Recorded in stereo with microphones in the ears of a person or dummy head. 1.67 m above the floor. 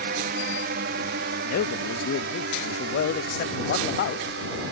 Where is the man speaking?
60° left (ahead or behind).